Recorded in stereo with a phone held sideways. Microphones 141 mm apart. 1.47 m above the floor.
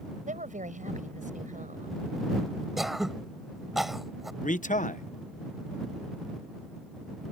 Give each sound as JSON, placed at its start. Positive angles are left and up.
{"t": 0.3, "sound": "a woman speaking", "side_deg": -65}
{"t": 2.8, "sound": "throat clearing", "side_deg": -5}
{"t": 4.4, "sound": "a man speaking", "side_deg": 65}